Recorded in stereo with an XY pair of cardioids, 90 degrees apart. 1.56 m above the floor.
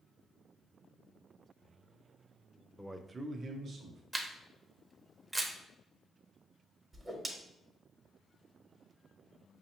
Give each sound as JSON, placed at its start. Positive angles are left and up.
{"t": 2.8, "sound": "a man speaking", "azimuth_deg": 5, "distance_m": 0.5}
{"t": 4.1, "sound": "a camera shutter", "azimuth_deg": -20, "distance_m": 0.7}
{"t": 6.9, "sound": "a whoosh", "azimuth_deg": -30, "distance_m": 1.0}